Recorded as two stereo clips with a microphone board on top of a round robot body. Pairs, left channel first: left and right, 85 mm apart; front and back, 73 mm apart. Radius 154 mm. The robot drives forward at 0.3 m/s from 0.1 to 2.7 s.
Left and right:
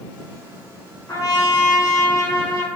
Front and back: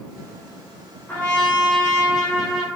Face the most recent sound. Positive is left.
turn(degrees=90)